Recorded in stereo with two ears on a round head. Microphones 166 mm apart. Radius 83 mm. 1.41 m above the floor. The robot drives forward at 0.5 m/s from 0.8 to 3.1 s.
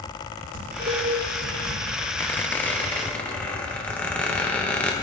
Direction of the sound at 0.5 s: 40° right (ahead or behind).